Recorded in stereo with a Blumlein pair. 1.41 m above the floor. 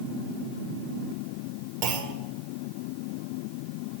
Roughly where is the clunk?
Ahead right.